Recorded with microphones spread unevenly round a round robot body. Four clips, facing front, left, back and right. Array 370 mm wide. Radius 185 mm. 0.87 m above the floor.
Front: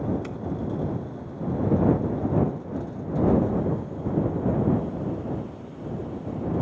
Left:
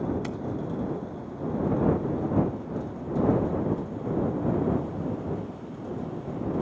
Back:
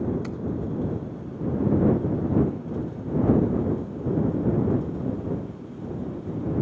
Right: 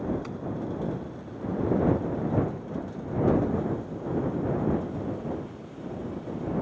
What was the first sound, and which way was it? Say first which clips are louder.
Keys jangling: left 3 dB, back 1 dB; 140° left.